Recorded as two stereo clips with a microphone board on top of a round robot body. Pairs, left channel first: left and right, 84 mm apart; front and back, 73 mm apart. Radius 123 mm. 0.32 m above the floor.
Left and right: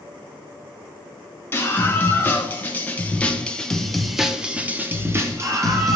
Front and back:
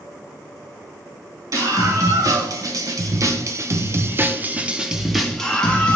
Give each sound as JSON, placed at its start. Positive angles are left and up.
{"t": 1.5, "sound": "a scream", "azimuth_deg": 150, "distance_m": 2.5}